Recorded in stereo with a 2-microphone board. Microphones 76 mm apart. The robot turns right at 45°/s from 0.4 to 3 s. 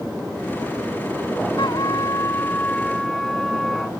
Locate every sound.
1.6 s a trumpet: 110° left; by 3.9 s 175° left